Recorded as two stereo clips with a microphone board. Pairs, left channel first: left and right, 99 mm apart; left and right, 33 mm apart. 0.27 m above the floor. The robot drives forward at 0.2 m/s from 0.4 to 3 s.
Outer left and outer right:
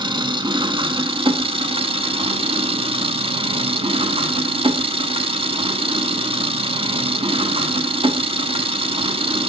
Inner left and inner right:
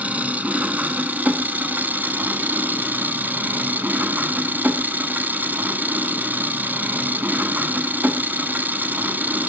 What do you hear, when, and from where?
0.0 s an engine running: 55° right (ahead or behind), 0.7 m; by 9.5 s 70° right (ahead or behind), 0.6 m